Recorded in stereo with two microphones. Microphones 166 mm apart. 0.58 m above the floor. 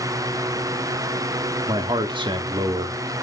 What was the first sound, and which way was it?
A man speaking, 30° right (ahead or behind).